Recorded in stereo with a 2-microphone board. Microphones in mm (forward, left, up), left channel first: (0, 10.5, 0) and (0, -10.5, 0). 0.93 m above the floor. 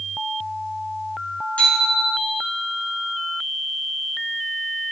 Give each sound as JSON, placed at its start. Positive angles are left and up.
{"t": 1.6, "sound": "a bicycle bell", "side_deg": 80, "distance_m": 7.5}